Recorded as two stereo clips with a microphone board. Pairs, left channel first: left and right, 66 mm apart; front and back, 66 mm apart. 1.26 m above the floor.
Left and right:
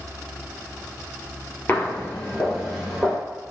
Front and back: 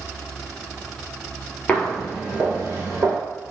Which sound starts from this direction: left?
Footsteps, at 1.7 s.